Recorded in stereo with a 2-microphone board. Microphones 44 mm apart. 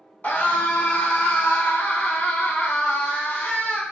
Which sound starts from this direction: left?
A scream, at 0.2 s.